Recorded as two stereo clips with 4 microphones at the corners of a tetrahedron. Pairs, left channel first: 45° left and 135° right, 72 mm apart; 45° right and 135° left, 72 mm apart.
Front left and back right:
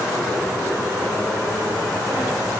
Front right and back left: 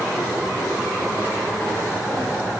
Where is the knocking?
I don't hear knocking.